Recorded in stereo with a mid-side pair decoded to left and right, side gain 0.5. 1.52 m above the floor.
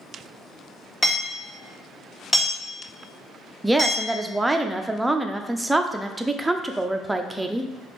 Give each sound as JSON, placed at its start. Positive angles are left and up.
{"t": 1.0, "sound": "hammering", "azimuth_deg": 30, "distance_m": 2.0}
{"t": 3.6, "sound": "a woman speaking", "azimuth_deg": -15, "distance_m": 0.6}